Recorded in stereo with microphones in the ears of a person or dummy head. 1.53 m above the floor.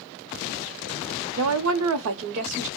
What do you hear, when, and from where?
1.4 s a woman speaking: 65° right (ahead or behind), 0.5 m; by 2.7 s 60° right (ahead or behind), 0.9 m